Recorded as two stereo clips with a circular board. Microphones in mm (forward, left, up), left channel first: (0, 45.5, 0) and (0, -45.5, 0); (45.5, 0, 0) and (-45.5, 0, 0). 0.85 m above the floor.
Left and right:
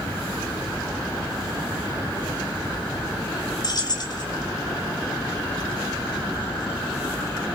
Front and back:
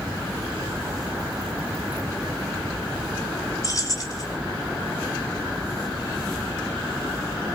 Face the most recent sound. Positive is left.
turn(degrees=50)